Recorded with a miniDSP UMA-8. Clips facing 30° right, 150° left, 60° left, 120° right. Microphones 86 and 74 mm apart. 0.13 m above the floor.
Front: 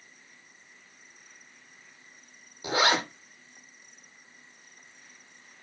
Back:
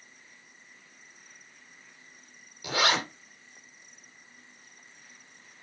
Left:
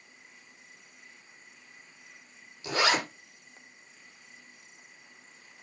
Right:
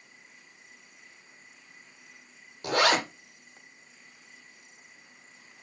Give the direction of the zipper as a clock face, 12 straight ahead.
3 o'clock.